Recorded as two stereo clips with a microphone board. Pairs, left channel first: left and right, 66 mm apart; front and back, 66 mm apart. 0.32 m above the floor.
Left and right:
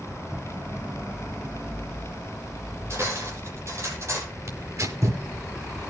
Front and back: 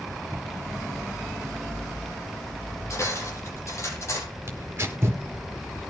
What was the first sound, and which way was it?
Cutlery clinking, 45° right.